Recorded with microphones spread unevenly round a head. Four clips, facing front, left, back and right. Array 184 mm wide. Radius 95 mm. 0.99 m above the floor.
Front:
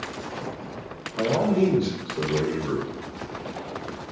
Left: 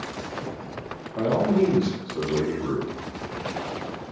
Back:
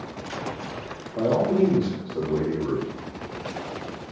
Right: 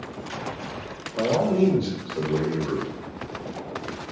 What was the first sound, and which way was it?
A man speaking, 140° left.